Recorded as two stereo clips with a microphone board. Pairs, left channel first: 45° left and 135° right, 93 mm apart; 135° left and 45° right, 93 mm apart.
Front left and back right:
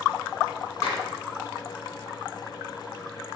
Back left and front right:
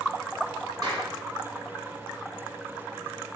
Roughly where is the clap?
Ahead.